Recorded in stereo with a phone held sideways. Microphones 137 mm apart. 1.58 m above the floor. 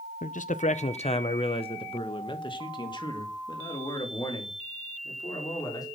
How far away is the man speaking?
About 0.5 m.